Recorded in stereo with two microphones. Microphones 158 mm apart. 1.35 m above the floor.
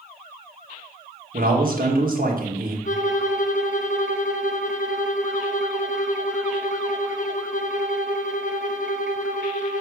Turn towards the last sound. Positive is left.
turn(degrees=55)  # may be behind; listen again after turning